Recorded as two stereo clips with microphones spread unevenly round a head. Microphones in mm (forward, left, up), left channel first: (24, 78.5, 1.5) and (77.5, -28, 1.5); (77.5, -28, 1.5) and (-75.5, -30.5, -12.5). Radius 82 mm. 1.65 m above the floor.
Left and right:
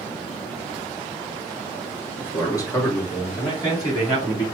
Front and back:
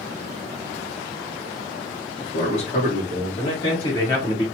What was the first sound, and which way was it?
A man speaking, 50° left.